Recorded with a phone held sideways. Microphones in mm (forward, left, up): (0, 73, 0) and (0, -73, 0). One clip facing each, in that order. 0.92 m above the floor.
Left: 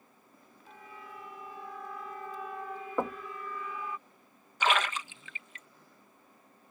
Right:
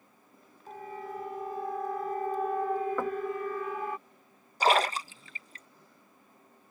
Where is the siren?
45° right (ahead or behind); by 4.0 s 60° right (ahead or behind).